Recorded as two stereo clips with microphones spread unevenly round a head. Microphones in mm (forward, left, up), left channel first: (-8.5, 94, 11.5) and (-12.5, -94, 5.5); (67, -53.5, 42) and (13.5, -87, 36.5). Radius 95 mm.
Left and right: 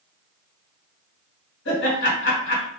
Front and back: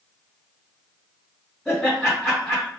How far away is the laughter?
About 2.5 m.